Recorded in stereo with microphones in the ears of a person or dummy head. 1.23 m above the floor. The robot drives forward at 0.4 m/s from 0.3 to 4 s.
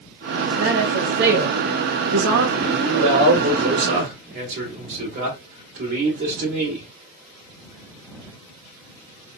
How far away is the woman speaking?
About 0.9 m.